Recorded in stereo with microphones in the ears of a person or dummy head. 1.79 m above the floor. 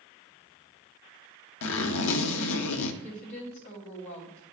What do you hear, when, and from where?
1.6 s a zipper: 80° left, 0.7 m
3.0 s a woman speaking: 50° left (ahead or behind), 1.8 m